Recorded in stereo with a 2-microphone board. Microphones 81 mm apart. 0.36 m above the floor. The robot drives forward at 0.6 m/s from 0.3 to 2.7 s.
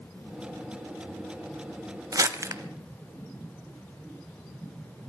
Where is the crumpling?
45° right (ahead or behind), 0.7 m; by 2.6 s 35° right (ahead or behind), 0.9 m.